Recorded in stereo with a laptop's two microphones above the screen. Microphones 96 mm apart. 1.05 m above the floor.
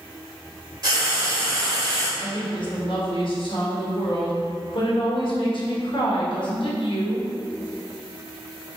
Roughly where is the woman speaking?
Left.